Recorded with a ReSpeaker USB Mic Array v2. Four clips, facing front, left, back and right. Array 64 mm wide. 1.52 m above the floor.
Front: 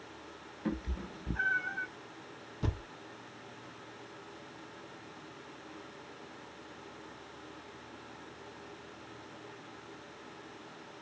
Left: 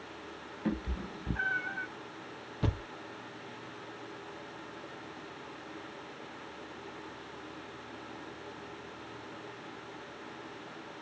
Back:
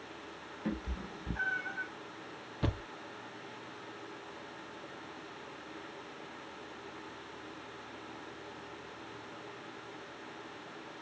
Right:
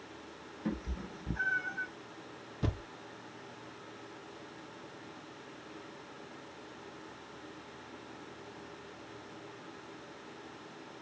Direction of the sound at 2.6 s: 160° left.